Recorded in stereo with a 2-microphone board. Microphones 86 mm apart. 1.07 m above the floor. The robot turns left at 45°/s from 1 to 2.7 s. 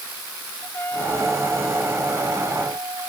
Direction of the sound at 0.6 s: 25° left.